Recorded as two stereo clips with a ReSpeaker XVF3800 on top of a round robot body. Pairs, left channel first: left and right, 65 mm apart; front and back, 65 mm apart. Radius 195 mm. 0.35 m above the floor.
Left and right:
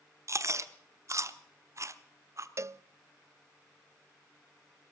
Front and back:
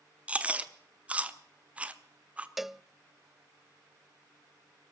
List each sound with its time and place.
0.3 s chewing: 115° right, 1.4 m
2.6 s a cowbell: 95° right, 0.6 m